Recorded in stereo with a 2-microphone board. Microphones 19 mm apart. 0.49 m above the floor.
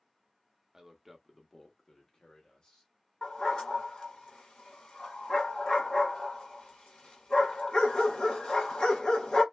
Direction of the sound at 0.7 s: 25° right (ahead or behind).